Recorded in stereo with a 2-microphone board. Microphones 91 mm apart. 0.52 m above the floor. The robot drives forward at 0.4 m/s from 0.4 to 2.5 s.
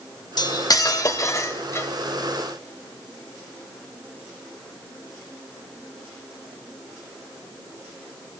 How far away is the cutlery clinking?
About 0.8 m.